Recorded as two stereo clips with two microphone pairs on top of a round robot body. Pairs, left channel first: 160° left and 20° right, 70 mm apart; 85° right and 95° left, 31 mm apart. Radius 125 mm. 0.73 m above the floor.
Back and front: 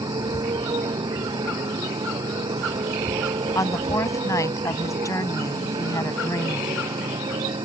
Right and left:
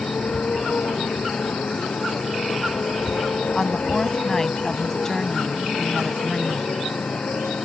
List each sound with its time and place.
0.0 s a motorcycle: 45° right; by 7.7 s 35° right
3.5 s a woman speaking: 160° right